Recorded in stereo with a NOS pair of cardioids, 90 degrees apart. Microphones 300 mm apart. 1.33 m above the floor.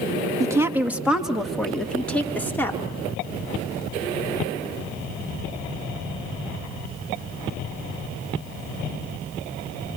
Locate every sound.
0.4 s a woman speaking: 10° right, 2 m; by 2.8 s 5° left, 4 m